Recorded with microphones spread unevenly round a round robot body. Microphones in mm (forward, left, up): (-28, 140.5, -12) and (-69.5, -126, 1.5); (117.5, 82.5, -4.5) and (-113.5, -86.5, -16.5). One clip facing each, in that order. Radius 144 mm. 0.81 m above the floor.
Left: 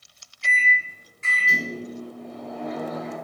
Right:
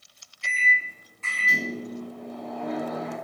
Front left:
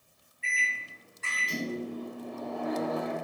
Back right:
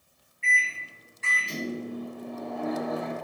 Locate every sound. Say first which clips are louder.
0.4 s a microwave: left 3 dB, back right 4 dB; 155° left, 3 m